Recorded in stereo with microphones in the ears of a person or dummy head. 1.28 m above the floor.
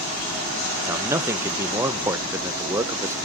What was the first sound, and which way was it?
A man speaking, 15° right (ahead or behind).